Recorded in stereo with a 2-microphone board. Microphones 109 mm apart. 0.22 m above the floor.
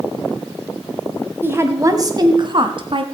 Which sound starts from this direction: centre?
A woman speaking, at 1.4 s.